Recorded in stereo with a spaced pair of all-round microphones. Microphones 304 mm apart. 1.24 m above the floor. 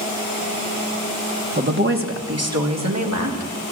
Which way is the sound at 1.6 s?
35° right (ahead or behind).